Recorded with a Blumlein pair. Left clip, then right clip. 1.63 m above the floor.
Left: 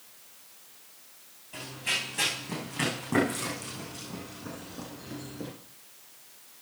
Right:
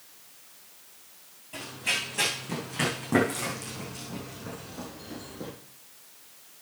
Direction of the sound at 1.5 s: 15° right.